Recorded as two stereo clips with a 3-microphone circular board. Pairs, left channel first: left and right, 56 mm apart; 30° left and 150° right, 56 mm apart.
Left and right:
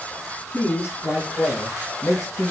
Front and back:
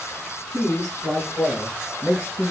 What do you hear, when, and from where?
0.5 s a man speaking: 115° left, 2.5 m; by 2.5 s 95° left, 4 m